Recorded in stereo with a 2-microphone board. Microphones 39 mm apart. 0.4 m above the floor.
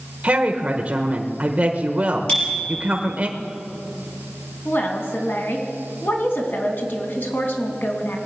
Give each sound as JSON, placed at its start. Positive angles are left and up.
{"t": 0.2, "sound": "a woman speaking", "side_deg": -35, "distance_m": 1.0}
{"t": 2.3, "sound": "a bicycle bell", "side_deg": 25, "distance_m": 6.5}
{"t": 4.7, "sound": "a woman speaking", "side_deg": 70, "distance_m": 3.0}